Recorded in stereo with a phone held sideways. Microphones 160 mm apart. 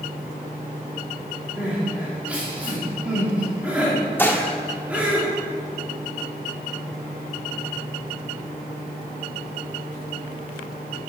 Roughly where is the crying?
Centre.